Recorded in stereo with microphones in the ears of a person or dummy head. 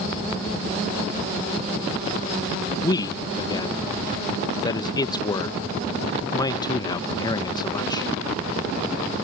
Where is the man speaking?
25° left (ahead or behind).